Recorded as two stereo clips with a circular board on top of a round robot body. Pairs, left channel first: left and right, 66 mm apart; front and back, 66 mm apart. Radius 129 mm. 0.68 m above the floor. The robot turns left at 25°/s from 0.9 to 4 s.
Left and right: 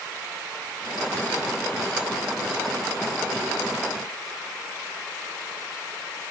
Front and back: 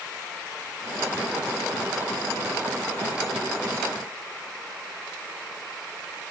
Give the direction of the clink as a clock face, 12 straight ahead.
I don't hear a clink.